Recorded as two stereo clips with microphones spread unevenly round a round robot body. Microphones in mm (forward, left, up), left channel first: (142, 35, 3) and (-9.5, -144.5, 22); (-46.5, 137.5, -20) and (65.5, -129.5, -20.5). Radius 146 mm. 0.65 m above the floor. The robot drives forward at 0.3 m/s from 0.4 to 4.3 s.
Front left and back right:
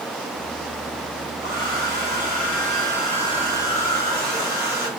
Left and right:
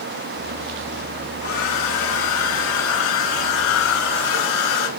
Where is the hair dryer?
165° left, 6 m.